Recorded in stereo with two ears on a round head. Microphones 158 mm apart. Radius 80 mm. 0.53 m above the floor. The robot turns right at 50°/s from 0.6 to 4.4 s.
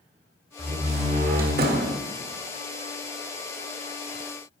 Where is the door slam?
150° right, 1.5 m; by 2.0 s 80° right, 1.5 m.